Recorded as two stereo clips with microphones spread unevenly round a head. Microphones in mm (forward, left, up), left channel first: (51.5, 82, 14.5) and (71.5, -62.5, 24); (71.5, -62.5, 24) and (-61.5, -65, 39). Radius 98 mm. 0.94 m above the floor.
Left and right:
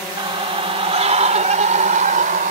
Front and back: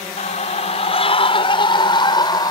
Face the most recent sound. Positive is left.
turn(degrees=-55)